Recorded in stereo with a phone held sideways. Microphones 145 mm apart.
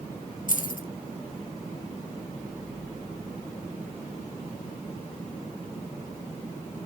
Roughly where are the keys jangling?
Left.